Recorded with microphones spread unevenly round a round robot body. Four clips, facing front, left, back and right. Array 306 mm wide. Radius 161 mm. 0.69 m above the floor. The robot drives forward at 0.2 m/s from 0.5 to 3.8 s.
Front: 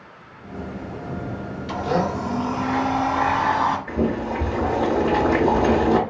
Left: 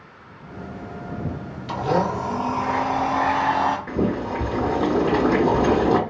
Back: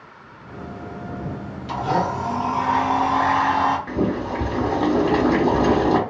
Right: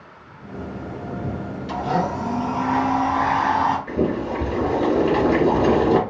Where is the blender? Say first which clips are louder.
Left 1 dB, back 1 dB; 90° left, 1.3 m; by 3.8 s 105° left, 1.4 m.